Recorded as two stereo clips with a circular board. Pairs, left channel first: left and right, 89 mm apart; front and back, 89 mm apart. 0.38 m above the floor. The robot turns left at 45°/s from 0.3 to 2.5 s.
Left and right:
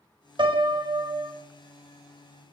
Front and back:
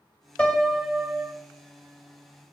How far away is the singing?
No singing in this recording.